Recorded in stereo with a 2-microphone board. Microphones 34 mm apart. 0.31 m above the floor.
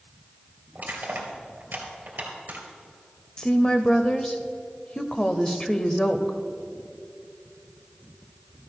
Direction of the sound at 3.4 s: 25° left (ahead or behind).